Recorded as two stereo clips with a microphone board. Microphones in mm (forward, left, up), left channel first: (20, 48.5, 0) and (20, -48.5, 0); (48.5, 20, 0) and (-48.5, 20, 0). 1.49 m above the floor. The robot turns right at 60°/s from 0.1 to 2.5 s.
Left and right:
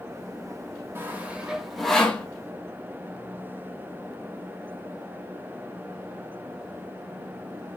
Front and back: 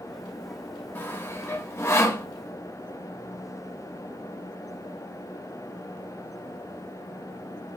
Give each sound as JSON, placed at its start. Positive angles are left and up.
{"t": 0.9, "sound": "sawing", "azimuth_deg": -45, "distance_m": 1.1}